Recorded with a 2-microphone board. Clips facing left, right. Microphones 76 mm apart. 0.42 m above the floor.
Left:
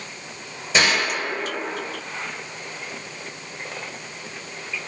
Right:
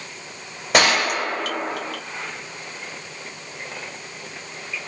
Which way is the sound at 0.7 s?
60° right (ahead or behind).